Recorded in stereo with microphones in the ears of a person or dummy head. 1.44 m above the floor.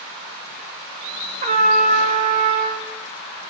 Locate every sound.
1.4 s a trumpet: 40° right (ahead or behind), 1.0 m